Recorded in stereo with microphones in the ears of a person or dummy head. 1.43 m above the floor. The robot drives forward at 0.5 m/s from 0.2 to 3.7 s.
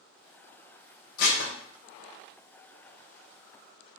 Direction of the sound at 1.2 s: 50° left (ahead or behind).